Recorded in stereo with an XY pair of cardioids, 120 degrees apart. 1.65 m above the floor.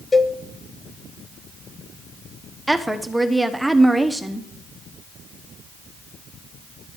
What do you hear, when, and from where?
0.1 s a cowbell: 20° left, 0.6 m
2.7 s a woman speaking: 5° right, 1.0 m